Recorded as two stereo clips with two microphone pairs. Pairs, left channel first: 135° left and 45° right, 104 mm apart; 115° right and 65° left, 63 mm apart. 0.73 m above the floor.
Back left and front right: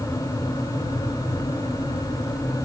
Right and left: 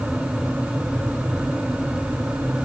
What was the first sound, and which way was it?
Only background noise.